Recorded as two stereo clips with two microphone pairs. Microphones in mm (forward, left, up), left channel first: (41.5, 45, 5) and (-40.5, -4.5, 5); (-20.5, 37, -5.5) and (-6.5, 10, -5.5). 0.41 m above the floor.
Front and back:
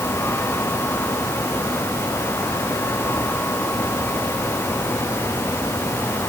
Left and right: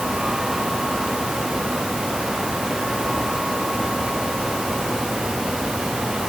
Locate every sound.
Only background noise.